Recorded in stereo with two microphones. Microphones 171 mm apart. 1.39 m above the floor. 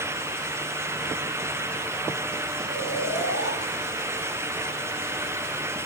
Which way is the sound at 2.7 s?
75° left (ahead or behind).